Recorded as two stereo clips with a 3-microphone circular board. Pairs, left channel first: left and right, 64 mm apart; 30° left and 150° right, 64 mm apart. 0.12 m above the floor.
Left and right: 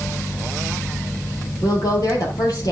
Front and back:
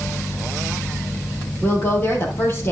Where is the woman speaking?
80° left, 3.5 m.